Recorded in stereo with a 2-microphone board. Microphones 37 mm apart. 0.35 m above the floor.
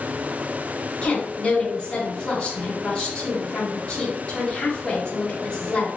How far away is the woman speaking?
About 0.9 m.